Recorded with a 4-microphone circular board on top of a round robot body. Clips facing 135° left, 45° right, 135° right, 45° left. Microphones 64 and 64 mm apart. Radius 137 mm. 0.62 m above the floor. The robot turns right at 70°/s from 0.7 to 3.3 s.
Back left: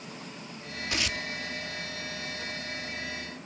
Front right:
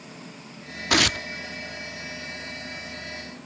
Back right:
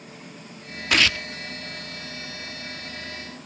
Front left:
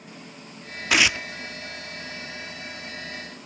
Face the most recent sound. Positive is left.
turn(degrees=130)